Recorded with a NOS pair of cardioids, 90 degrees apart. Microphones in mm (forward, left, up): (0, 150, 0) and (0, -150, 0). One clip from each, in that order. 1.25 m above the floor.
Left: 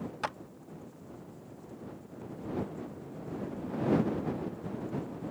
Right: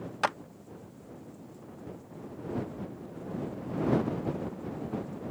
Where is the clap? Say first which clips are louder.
Right 7 dB; 30° right.